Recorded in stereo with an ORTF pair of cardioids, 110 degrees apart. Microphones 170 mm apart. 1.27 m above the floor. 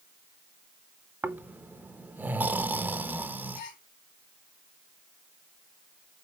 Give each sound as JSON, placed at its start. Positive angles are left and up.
{"t": 1.2, "sound": "snoring", "azimuth_deg": -10, "distance_m": 0.9}
{"t": 3.5, "sound": "a gasp", "azimuth_deg": 60, "distance_m": 3.0}